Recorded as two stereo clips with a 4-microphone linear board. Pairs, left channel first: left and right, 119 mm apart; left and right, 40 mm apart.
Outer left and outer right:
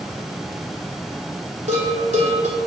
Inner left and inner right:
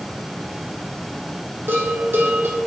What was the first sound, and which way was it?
A bell, 85° right.